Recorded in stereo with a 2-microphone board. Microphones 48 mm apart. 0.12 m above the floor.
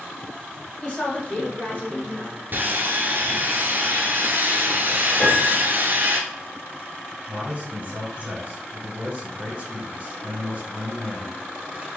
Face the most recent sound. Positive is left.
turn(degrees=-30)  # may be behind; listen again after turning